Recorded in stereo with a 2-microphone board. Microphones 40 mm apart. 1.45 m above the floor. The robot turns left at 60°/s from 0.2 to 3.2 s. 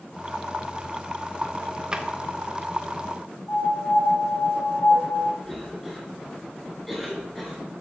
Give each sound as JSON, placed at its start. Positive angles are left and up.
{"t": 1.9, "sound": "a drawer", "side_deg": -20, "distance_m": 0.7}
{"t": 3.5, "sound": "a piano", "side_deg": 65, "distance_m": 4.5}
{"t": 5.4, "sound": "a cough", "side_deg": 5, "distance_m": 3.0}